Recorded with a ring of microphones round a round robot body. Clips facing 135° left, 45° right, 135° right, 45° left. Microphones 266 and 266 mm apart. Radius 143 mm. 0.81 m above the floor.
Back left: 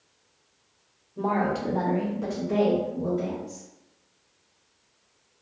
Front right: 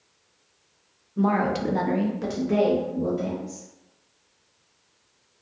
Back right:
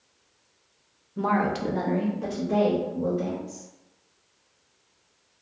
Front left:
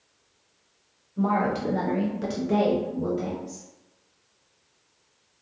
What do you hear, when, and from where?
1.2 s a woman speaking: 110° right, 0.6 m; by 3.7 s 30° left, 1.3 m